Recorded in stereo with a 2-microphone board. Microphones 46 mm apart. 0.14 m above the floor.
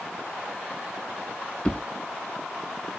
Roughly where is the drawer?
Left.